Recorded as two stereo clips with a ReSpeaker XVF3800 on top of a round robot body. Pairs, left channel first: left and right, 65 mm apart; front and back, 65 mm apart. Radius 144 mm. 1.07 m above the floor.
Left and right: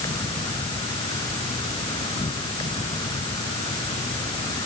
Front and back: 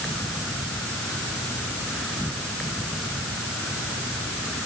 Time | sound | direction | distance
0.0 | an insect | 85° left | ?